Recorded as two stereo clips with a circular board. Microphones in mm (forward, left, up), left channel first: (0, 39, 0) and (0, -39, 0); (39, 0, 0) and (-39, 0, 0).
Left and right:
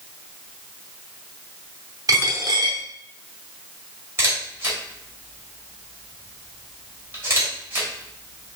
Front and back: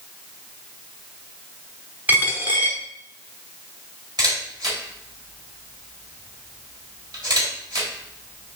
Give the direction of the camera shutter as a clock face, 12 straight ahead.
5 o'clock.